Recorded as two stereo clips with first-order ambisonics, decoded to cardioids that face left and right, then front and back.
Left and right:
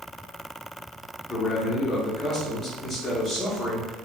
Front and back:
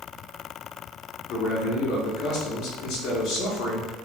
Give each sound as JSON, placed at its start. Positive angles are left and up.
{"t": 1.3, "sound": "a man speaking", "azimuth_deg": 15, "distance_m": 0.8}